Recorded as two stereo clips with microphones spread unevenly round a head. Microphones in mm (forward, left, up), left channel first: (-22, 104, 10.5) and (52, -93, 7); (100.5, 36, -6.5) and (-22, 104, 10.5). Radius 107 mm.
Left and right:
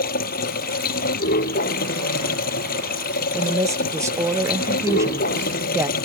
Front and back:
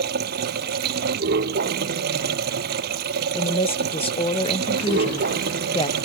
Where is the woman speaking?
5° left.